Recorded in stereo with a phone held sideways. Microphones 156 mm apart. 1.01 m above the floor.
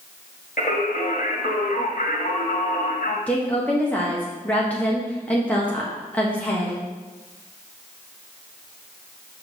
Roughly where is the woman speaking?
Centre.